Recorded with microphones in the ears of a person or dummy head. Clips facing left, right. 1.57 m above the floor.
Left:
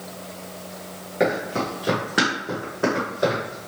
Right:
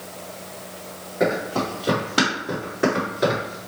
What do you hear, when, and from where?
1.2 s running footsteps: 25° left (ahead or behind), 1.6 m; by 3.6 s 20° right (ahead or behind), 1.6 m